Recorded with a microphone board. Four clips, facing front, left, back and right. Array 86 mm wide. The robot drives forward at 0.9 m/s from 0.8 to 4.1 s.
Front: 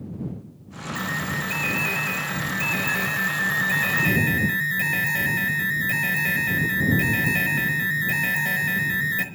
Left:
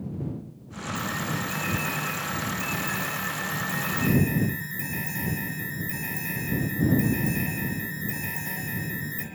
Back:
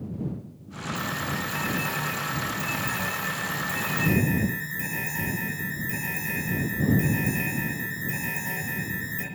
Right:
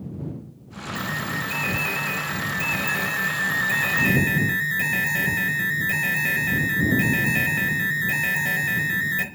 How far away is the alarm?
About 5.5 m.